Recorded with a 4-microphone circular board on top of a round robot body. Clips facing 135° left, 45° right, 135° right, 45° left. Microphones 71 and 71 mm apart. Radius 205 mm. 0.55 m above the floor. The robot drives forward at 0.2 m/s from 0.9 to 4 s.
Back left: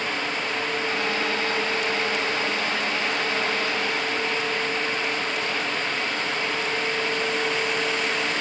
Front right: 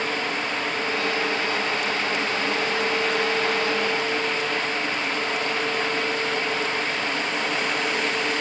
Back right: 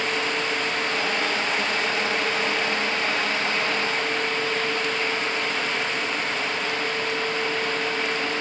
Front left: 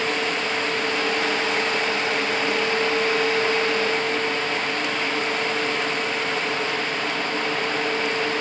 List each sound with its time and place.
Only background noise.